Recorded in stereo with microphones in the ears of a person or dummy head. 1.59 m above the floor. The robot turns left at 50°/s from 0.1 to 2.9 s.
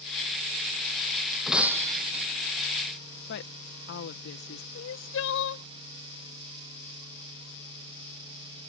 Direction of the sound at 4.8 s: 65° left (ahead or behind).